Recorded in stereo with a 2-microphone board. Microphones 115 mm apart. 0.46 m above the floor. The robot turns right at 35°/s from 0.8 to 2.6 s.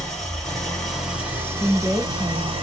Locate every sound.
0.0 s an engine running: straight behind, 1.6 m; by 2.6 s 120° right, 1.6 m
1.6 s a woman speaking: 10° right (ahead or behind), 0.9 m; by 2.5 s centre (ahead or behind), 0.9 m